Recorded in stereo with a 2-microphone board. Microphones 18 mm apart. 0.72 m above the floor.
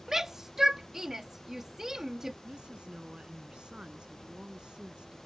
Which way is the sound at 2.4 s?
45° right (ahead or behind).